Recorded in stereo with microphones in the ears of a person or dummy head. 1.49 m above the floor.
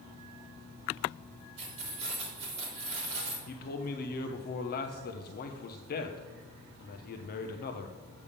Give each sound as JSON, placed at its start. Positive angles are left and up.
{"t": 1.6, "sound": "keys jangling", "side_deg": -35, "distance_m": 3.0}
{"t": 3.5, "sound": "a man speaking", "side_deg": 55, "distance_m": 0.8}